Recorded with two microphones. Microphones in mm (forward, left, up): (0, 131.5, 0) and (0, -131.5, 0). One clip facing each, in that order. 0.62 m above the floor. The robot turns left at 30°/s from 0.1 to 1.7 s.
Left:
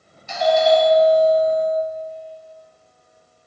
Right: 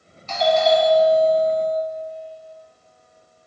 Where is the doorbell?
15° left, 1.9 m; by 1.8 s 30° right, 1.9 m.